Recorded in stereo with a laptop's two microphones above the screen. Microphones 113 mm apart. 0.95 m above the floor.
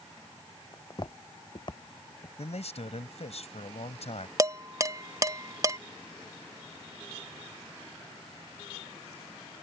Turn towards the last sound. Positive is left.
turn(degrees=-30)  # may be behind; listen again after turning